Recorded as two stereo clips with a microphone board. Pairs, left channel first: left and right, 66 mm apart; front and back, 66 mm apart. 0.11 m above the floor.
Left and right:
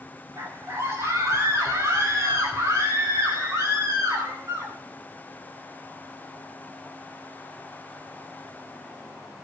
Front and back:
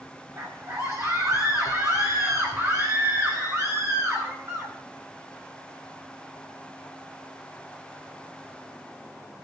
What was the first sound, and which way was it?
A scream, 135° right.